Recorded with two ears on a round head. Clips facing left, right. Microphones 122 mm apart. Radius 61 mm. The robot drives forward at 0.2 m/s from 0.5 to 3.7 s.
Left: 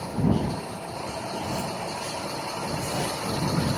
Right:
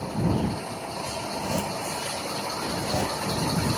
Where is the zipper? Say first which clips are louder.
Right 2 dB; 60° right (ahead or behind), 2.5 m; by 3.1 s 70° right (ahead or behind), 2 m.